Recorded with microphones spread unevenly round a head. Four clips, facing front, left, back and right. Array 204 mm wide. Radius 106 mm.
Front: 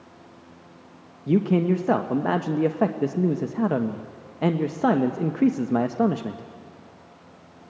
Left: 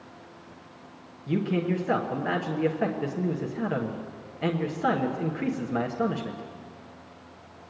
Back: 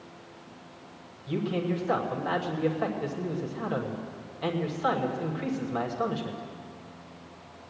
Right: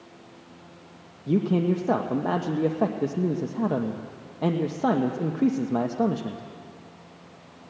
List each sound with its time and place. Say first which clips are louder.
1.3 s a man speaking: right 4 dB, front 9 dB; 25° right, 1.0 m